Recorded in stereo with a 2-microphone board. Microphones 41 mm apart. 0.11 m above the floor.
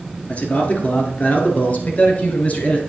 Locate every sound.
0.3 s a man speaking: 30° left (ahead or behind), 1.7 m; by 2.8 s 35° left (ahead or behind), 1.5 m